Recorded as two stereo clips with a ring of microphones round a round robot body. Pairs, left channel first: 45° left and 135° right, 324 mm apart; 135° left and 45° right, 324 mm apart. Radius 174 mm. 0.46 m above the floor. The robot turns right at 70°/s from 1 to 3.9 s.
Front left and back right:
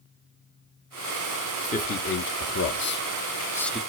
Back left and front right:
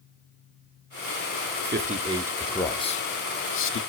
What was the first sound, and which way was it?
A man speaking, 15° right.